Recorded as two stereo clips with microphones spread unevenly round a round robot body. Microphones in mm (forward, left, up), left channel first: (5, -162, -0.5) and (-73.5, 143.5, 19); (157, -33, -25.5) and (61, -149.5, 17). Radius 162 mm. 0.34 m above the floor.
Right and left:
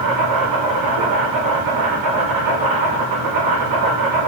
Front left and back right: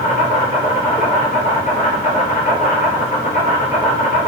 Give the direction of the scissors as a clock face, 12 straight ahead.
I don't hear scissors.